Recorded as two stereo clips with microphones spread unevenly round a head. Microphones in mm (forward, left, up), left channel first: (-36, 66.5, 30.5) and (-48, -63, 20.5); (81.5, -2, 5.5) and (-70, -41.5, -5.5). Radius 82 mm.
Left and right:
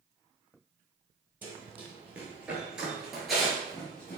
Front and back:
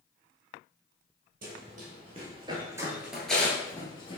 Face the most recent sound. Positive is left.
turn(degrees=15)